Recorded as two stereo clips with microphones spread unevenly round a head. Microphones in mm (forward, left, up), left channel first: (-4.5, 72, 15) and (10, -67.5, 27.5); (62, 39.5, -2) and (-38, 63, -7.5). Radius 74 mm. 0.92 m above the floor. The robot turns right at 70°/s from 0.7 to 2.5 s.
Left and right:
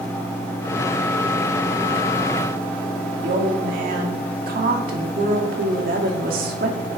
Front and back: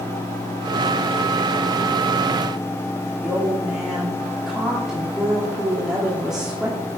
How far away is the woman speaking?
About 2.5 m.